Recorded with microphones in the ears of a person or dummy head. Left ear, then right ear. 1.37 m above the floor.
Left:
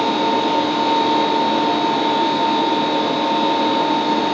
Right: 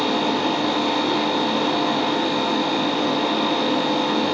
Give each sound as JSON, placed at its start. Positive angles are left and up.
{"t": 0.0, "sound": "a fan", "side_deg": -45, "distance_m": 1.8}